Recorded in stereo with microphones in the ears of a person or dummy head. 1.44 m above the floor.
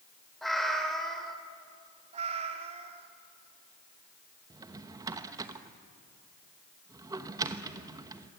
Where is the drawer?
20° right (ahead or behind), 1.0 m.